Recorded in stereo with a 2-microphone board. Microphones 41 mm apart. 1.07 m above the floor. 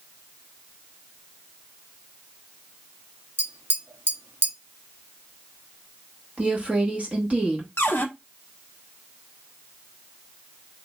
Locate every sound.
3.4 s tapping: 55° right (ahead or behind), 0.8 m
6.4 s a woman speaking: 35° right (ahead or behind), 1.6 m
7.8 s a cupboard door: 60° left (ahead or behind), 0.7 m